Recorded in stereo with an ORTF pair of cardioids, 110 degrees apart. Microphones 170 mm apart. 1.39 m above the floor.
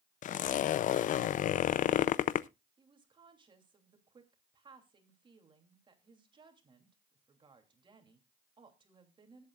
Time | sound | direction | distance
0.2 | a zipper | 50° left | 0.5 m
2.8 | a woman speaking | 30° right | 3 m